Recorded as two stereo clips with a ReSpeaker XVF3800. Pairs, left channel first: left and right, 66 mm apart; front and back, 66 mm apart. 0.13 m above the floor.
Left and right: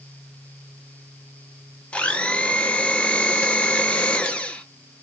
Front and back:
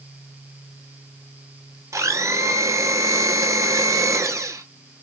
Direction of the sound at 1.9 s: 160° left.